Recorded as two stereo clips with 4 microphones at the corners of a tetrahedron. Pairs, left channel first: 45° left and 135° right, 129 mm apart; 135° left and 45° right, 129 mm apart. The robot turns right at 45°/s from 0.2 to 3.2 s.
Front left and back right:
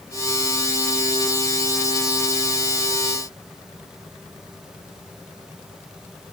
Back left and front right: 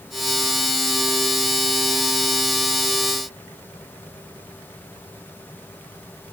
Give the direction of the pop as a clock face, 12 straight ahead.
I don't hear a pop.